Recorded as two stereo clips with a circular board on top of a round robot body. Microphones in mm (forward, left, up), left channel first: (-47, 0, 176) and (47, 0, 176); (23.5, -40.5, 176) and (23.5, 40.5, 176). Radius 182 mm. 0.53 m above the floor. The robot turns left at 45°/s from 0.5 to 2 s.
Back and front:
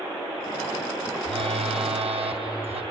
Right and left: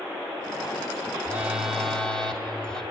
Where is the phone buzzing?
25° left, 2.5 m; by 2.8 s 10° right, 2.5 m.